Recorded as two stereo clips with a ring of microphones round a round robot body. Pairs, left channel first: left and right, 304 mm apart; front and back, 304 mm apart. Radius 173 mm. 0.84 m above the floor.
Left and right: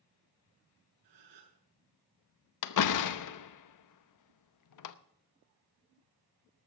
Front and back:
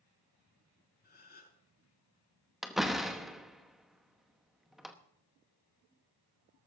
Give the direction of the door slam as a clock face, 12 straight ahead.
9 o'clock.